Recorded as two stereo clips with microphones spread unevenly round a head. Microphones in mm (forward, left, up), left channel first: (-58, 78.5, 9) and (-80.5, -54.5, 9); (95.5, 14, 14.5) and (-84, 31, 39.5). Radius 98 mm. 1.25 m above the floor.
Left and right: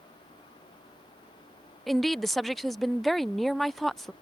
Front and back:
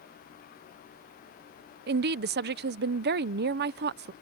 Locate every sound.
1.9 s a woman speaking: 170° left